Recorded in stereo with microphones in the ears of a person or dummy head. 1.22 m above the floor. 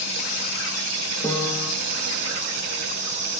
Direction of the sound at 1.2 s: 5° left (ahead or behind).